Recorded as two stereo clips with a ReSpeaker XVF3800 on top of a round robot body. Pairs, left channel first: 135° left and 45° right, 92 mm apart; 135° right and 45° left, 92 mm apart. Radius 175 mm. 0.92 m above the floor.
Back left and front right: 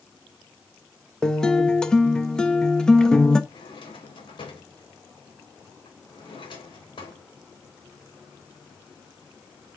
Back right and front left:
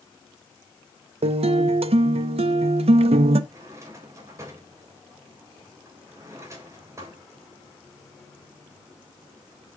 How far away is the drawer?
About 3 m.